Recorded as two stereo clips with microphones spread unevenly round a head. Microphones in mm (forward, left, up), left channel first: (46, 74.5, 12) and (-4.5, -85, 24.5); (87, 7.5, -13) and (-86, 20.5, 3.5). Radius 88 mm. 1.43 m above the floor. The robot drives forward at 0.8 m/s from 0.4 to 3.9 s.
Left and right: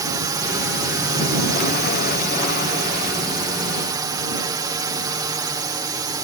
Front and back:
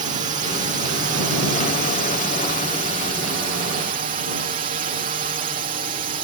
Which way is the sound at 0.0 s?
165° right.